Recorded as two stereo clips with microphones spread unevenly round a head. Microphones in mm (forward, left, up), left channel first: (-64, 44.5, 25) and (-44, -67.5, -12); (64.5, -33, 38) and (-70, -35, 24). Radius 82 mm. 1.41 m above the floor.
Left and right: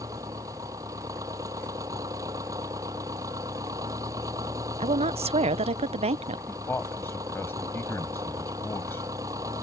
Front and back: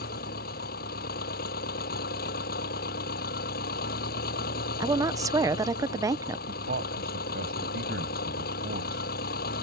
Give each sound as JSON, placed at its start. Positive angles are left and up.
{"t": 0.0, "sound": "an engine running", "azimuth_deg": -5}
{"t": 4.8, "sound": "a woman speaking", "azimuth_deg": -115}
{"t": 6.5, "sound": "a man speaking", "azimuth_deg": 170}